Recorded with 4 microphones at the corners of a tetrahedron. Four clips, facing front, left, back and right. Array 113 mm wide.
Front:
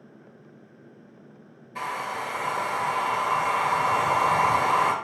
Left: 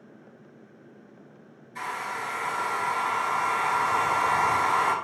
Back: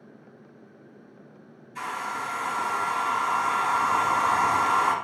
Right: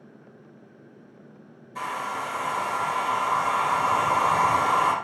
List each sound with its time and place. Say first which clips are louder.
1.8 s a hair dryer: right 2 dB, front 1 dB; 25° right, 2.5 m